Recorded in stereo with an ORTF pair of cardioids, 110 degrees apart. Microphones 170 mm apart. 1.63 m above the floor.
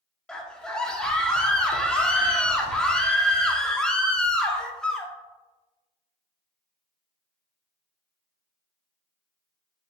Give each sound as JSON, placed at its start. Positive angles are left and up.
{"t": 0.3, "sound": "a scream", "azimuth_deg": 5, "distance_m": 0.7}